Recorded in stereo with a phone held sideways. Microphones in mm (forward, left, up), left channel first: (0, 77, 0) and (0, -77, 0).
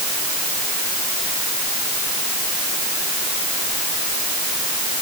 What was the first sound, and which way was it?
Only background noise.